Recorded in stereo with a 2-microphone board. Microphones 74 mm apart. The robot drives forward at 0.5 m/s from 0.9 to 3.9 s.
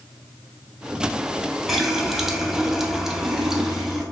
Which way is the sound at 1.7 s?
5° right (ahead or behind).